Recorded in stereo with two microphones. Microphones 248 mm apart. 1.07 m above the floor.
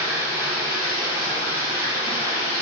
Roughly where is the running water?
Centre.